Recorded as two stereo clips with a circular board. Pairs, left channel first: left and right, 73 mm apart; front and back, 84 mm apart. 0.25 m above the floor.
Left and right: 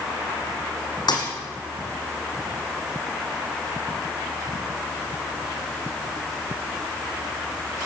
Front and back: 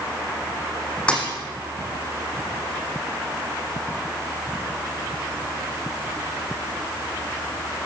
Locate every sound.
1.1 s a thud: 75° left, 5 m